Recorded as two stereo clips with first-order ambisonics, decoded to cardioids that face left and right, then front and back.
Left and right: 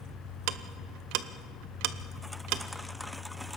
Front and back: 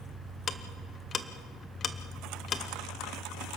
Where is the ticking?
65° right, 0.8 m.